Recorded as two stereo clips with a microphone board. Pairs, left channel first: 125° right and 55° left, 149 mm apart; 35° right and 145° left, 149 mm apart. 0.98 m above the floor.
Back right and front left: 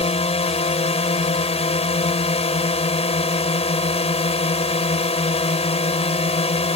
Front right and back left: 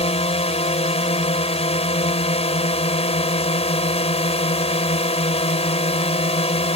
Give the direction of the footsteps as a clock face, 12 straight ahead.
No footsteps in this recording.